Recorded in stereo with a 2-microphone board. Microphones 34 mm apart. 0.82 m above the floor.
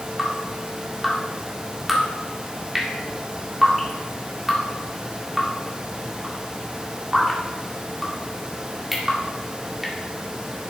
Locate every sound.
0.2 s dripping: 5° right (ahead or behind), 1.9 m